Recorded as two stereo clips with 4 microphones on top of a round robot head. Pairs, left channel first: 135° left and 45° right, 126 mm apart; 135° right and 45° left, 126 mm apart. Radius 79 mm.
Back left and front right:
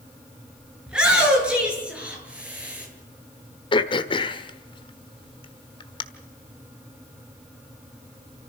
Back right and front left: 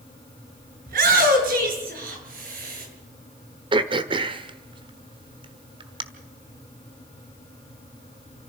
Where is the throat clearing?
90° left, 1.3 m.